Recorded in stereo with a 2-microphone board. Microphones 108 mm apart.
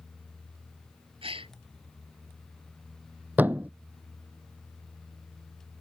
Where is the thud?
15° right (ahead or behind).